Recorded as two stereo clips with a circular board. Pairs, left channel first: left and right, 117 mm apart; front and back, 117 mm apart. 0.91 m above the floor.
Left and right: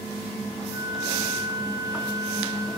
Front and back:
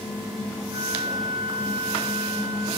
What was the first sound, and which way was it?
A flute, 145° right.